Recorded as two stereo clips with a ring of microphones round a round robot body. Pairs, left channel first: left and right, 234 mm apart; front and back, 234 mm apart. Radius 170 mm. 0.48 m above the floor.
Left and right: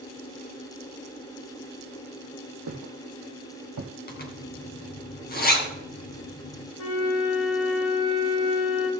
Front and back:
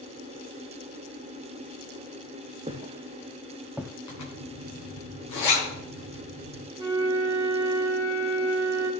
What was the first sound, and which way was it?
Footsteps, 115° right.